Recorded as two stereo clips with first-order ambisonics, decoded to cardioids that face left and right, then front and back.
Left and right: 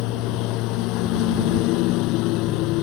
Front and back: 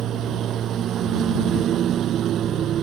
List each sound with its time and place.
0.0 s a lawn mower: 125° left